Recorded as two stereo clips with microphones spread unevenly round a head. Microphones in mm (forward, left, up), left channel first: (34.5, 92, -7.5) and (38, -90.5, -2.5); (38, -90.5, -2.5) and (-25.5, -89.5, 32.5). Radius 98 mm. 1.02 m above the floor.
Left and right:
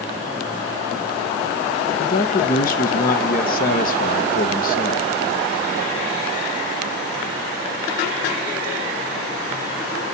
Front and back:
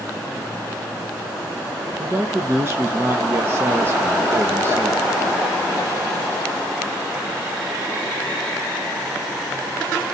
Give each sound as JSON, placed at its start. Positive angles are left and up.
{"t": 2.0, "sound": "a man speaking", "azimuth_deg": 100, "distance_m": 1.0}